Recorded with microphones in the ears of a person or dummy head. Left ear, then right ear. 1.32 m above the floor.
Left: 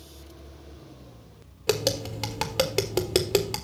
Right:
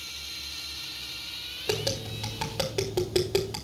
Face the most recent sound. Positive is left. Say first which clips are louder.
# left 5 dB
turn(degrees=25)  # may be behind; listen again after turning